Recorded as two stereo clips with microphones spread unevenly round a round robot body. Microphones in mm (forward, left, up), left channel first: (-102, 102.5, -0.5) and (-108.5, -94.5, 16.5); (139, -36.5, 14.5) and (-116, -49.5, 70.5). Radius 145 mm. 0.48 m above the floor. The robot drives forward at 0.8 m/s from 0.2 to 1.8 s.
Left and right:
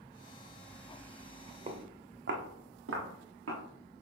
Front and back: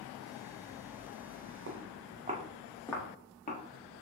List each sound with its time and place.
1.7 s footsteps: 145° right, 1.7 m; by 3.6 s 60° right, 2.5 m